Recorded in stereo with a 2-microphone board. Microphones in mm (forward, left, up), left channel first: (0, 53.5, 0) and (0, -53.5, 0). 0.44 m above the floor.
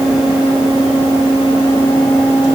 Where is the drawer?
No drawer in this recording.